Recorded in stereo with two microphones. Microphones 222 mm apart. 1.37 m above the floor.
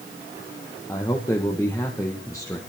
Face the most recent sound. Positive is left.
turn(degrees=15)  # may be behind; listen again after turning